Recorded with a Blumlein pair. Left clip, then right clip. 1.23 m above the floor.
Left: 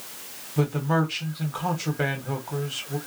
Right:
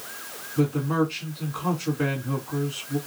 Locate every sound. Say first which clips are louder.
0.6 s a man speaking: even; 55° left, 1.4 m